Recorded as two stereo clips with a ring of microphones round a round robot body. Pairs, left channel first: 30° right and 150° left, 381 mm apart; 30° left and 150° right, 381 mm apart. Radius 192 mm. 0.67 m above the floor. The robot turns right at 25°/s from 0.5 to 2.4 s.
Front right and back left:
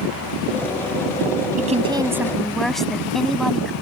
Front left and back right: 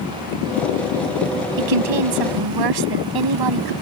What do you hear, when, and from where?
1.6 s a woman speaking: 140° right; by 3.7 s 120° right